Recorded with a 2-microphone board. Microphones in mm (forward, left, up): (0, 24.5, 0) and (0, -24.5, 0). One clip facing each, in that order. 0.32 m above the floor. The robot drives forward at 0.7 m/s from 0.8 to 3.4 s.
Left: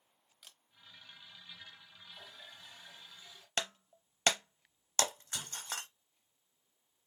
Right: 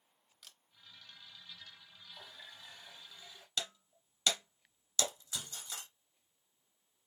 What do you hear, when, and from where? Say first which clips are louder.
0.4 s a camera shutter: even; 5° left (ahead or behind), 0.8 m
2.1 s a running tap: right 1 dB; 20° right (ahead or behind), 1.7 m; by 3.5 s 35° right (ahead or behind), 1.0 m
3.6 s breaking glass: left 3 dB; 50° left (ahead or behind), 0.5 m